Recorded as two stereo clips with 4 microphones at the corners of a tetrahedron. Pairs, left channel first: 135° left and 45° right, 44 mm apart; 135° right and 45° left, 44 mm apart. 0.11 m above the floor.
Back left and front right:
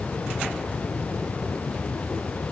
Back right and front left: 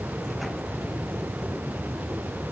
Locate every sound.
Only background noise.